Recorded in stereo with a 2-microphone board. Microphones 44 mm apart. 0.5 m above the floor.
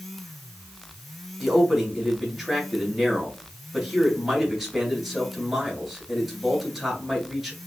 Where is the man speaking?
5° right (ahead or behind), 2.5 m.